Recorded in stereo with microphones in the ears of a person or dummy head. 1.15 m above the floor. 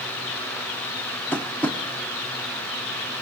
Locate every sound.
1.3 s tapping: centre (ahead or behind), 0.5 m